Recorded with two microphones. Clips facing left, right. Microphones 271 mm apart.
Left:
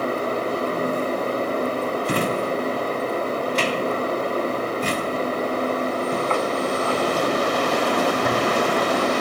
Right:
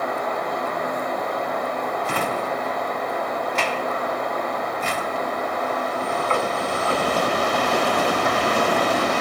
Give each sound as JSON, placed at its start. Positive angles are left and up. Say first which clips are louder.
{"t": 2.0, "sound": "a drawer", "louder": "left 4 dB", "side_deg": 40, "distance_m": 0.7}